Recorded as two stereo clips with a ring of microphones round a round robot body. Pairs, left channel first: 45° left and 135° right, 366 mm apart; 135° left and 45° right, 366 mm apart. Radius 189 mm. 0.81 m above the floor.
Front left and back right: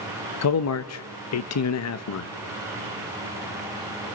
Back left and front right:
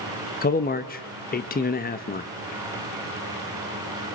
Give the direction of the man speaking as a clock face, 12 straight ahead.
9 o'clock.